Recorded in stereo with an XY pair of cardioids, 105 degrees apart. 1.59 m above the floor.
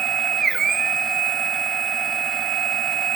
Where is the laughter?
I don't hear laughter.